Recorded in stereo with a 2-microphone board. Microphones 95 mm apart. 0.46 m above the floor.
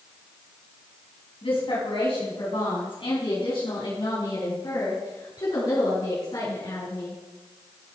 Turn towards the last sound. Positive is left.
turn(degrees=50)  # may be behind; listen again after turning